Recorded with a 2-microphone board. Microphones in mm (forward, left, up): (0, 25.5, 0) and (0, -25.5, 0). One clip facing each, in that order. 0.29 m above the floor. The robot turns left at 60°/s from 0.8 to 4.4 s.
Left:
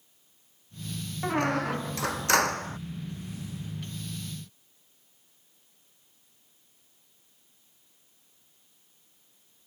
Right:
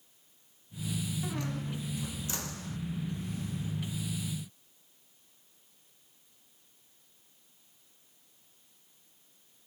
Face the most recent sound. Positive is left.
turn(degrees=-55)